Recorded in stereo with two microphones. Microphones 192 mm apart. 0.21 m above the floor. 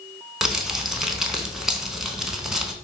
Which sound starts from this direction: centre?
Crumpling, at 0.4 s.